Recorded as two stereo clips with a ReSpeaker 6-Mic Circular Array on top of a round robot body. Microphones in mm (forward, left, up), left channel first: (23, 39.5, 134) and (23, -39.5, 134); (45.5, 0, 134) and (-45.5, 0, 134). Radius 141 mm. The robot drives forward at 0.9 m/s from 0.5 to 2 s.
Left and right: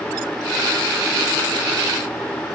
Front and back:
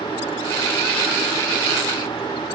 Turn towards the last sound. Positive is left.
No sound to turn to.